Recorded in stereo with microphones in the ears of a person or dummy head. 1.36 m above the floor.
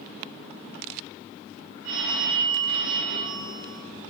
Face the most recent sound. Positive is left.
turn(degrees=-50)  # may be behind; listen again after turning